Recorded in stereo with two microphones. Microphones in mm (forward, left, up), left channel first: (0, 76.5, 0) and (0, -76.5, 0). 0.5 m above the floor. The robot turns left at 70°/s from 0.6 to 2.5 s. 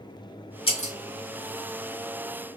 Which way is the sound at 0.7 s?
35° left (ahead or behind).